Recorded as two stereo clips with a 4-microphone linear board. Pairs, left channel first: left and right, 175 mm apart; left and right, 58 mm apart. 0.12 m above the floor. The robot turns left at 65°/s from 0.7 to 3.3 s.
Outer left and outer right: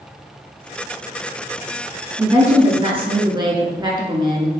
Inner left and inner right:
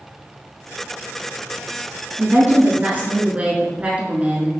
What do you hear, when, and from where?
2.2 s a woman speaking: 55° right, 1.2 m; by 4.5 s 130° right, 1.2 m